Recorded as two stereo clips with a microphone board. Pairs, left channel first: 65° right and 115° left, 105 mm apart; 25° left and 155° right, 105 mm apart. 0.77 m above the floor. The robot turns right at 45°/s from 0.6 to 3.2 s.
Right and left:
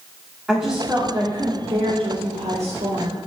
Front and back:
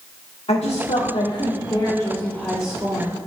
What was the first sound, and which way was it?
A woman speaking, 30° left.